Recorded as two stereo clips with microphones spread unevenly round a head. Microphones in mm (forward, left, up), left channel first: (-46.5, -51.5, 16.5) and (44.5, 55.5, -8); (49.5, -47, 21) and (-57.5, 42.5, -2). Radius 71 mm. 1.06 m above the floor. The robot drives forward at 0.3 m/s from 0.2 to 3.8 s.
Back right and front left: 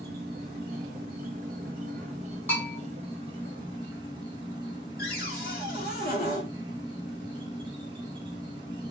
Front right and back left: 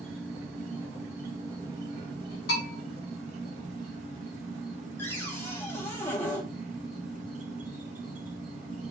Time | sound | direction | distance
0.0 | an insect | 55° left | 1.4 m
2.5 | a bell | 55° right | 1.8 m
5.0 | a cupboard door | 120° right | 1.1 m